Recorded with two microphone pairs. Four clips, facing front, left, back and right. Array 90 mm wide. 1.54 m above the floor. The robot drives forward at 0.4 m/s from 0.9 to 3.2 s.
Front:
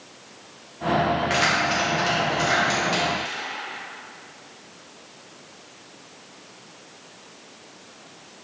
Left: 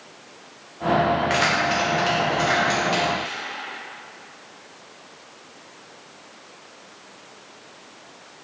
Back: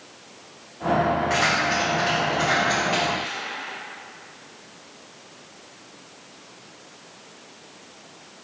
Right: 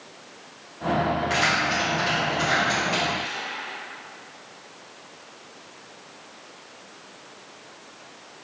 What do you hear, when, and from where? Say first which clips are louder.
1.3 s keys jangling: left 2 dB, even; 95° left, 0.7 m; by 3.4 s 140° left, 1.1 m